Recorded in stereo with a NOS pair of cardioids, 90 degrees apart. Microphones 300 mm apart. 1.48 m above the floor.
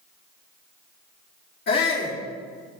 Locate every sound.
1.7 s a shout: 40° left, 2 m